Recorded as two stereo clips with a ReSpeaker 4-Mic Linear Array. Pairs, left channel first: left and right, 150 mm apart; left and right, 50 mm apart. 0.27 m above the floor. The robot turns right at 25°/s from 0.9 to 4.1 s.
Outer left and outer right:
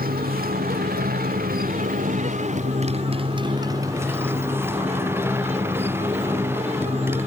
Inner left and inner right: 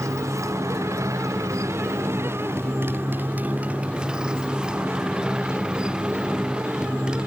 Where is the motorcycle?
95° right; by 7.3 s 15° right.